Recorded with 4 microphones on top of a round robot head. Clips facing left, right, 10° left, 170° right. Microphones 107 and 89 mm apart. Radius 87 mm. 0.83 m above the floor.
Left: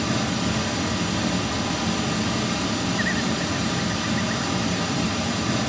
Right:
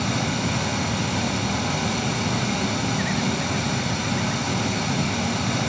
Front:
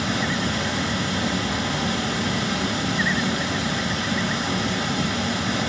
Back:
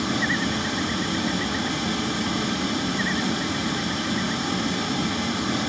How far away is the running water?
About 3 m.